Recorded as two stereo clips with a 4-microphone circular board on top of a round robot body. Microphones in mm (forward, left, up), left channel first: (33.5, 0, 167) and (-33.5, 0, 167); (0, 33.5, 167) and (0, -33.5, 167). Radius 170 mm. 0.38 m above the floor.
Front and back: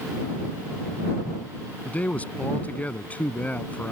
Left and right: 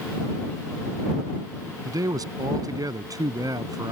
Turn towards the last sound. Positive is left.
turn(degrees=-65)